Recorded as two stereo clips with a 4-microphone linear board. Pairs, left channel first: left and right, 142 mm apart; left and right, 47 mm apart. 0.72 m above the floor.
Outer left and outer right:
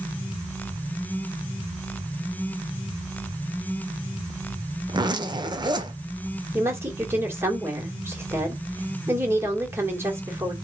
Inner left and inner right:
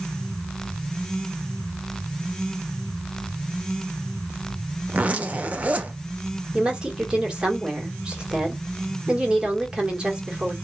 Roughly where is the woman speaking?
Centre.